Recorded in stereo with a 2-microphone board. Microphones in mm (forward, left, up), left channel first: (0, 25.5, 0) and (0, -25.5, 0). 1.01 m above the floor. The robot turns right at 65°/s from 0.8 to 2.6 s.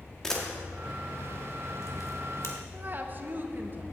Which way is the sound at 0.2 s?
10° left (ahead or behind).